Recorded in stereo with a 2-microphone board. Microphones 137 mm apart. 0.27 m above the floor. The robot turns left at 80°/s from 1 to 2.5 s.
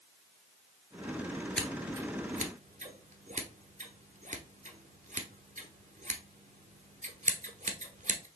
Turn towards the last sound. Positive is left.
turn(degrees=-70)  # may be behind; listen again after turning